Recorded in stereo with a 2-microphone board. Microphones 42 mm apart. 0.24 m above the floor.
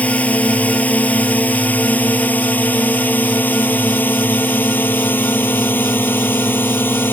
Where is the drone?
35° left (ahead or behind); by 7.1 s 55° left (ahead or behind).